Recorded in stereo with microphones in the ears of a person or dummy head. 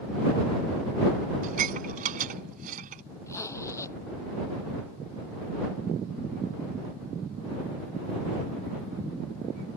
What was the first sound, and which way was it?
Dishes clattering, 45° right (ahead or behind).